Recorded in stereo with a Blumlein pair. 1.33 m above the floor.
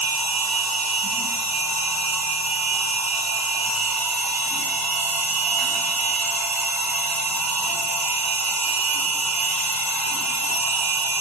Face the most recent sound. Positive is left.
turn(degrees=-20)